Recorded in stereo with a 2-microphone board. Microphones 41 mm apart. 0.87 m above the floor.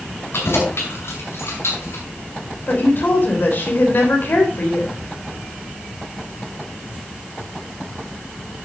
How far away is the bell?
I don't hear a bell.